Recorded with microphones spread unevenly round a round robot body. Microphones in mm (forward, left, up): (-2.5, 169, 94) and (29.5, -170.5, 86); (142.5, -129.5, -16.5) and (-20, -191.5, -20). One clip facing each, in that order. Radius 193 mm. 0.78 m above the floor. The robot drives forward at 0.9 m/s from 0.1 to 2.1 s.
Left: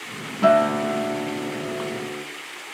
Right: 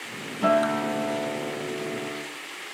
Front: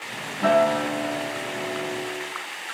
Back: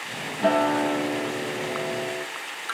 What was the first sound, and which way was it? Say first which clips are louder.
A guitar: left 4 dB, front 2 dB; 75° left.